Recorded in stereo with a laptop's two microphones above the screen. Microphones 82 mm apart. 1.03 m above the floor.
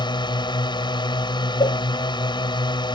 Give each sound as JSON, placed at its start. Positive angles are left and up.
{"t": 0.0, "sound": "a drone", "side_deg": 70}
{"t": 1.6, "sound": "a cowbell", "side_deg": 65}